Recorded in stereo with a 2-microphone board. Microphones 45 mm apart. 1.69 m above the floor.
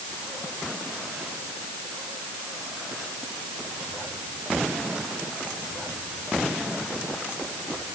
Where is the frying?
I don't hear frying.